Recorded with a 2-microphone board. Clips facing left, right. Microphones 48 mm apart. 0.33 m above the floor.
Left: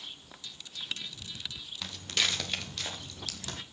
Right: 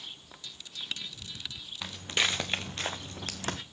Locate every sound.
1.8 s footsteps: 20° right (ahead or behind), 1.8 m; by 3.6 s 50° right (ahead or behind), 1.4 m